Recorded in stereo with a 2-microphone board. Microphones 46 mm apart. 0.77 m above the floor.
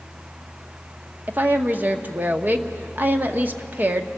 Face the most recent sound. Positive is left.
turn(degrees=-40)  # may be behind; listen again after turning